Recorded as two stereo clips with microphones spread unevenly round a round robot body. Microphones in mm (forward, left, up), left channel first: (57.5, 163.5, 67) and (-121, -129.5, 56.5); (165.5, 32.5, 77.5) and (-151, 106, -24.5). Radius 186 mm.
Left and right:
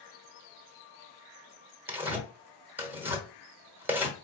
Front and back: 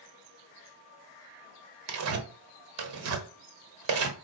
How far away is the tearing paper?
About 1.0 m.